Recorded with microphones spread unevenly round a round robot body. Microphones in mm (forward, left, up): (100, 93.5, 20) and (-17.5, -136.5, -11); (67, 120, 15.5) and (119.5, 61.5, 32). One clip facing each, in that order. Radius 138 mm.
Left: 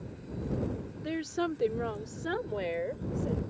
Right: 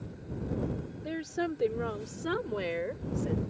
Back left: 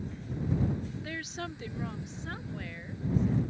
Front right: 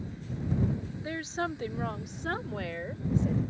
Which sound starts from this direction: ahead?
A woman speaking, at 1.0 s.